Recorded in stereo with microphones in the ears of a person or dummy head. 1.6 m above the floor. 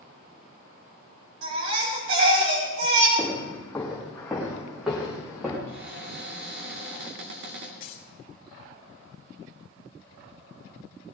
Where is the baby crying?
80° right, 5.5 m.